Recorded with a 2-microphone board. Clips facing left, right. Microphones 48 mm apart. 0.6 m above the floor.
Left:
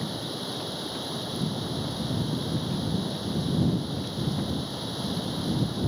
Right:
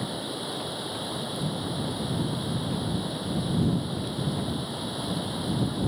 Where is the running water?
10° right (ahead or behind).